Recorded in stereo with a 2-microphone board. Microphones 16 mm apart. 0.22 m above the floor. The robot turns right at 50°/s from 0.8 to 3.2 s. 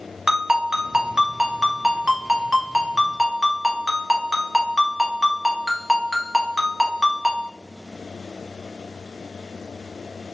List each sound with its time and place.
0.3 s a ringtone: 135° right, 0.7 m; by 7.5 s 15° right, 0.7 m